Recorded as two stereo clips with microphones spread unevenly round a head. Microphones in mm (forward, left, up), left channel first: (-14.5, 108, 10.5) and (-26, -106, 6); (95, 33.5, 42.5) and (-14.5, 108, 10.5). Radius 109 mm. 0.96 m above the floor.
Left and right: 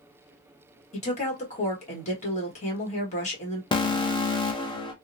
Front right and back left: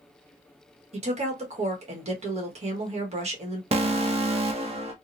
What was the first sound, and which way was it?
A woman speaking, 140° left.